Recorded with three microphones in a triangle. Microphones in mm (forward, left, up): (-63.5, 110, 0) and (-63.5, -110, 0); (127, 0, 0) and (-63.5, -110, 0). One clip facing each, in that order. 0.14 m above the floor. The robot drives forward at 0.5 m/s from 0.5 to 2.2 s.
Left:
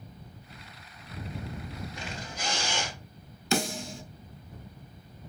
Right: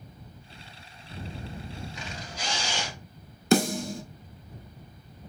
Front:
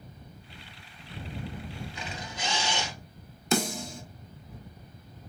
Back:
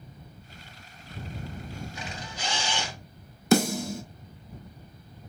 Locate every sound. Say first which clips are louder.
1.9 s a camera shutter: even, even; 90° left, 2 m
3.5 s a snare drum: right 7 dB, back 6 dB; 130° right, 0.5 m